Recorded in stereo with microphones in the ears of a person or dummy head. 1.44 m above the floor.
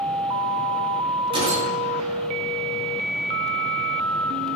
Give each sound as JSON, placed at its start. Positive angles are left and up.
{"t": 1.3, "sound": "a gunshot", "side_deg": -35, "distance_m": 7.5}